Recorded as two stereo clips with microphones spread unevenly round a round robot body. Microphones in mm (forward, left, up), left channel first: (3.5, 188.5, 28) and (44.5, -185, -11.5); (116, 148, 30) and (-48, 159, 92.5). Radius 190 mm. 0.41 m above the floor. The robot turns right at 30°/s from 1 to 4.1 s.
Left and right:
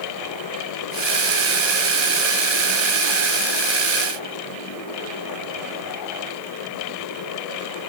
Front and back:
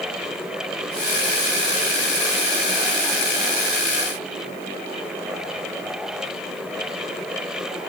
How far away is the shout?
No shout in this recording.